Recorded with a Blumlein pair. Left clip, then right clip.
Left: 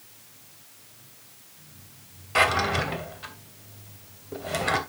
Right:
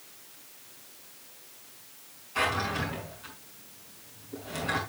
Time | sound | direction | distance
2.4 | a drawer | 50° left | 2.5 m